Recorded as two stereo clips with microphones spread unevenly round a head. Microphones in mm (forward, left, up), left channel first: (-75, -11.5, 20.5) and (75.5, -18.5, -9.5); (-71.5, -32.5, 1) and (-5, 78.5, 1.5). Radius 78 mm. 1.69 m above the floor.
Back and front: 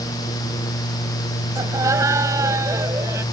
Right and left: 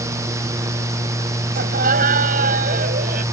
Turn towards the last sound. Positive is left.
turn(degrees=70)